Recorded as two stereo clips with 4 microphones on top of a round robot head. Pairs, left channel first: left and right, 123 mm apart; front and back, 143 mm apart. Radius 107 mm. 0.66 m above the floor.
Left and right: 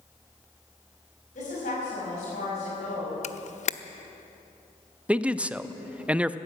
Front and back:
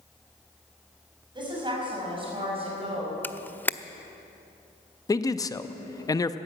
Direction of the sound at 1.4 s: 125° left.